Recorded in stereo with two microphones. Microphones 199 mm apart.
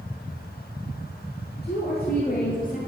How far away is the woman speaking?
About 3 m.